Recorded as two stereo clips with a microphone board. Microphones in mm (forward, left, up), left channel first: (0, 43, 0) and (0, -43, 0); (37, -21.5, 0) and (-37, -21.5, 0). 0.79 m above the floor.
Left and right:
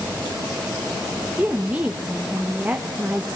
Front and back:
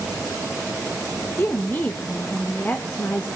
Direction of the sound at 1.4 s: 35° right.